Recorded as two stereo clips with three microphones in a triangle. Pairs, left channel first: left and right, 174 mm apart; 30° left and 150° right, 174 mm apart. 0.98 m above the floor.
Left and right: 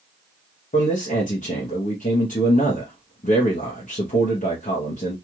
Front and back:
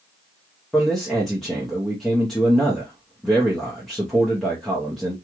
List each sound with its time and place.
0.7 s a man speaking: 115° left, 0.8 m